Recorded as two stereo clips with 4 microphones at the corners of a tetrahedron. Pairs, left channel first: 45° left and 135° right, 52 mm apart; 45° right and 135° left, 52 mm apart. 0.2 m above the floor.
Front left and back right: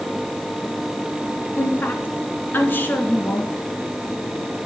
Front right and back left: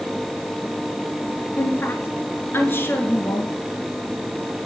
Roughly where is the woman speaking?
Ahead.